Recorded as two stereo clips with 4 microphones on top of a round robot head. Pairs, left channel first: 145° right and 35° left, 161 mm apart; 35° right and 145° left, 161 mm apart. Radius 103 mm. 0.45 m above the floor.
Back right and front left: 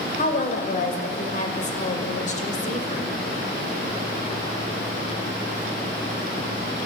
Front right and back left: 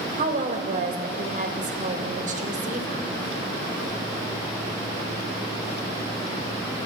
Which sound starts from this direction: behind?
A woman speaking, at 0.2 s.